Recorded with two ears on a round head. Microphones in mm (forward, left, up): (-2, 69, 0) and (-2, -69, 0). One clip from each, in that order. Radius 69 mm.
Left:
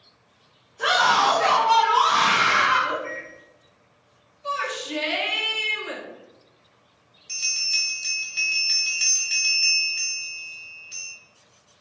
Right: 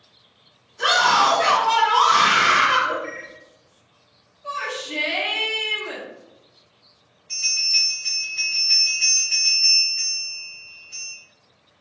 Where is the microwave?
25° right (ahead or behind), 1.6 m.